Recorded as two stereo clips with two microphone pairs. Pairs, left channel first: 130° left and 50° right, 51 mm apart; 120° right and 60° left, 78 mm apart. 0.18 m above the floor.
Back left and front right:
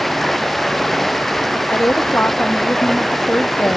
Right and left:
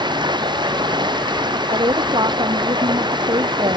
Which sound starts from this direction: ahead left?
Running water, at 0.0 s.